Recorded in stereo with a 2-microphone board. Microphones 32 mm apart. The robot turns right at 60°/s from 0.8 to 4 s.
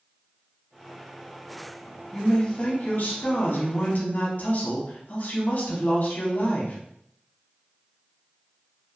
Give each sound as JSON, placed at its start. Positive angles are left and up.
{"t": 2.1, "sound": "a man speaking", "azimuth_deg": 5, "distance_m": 0.8}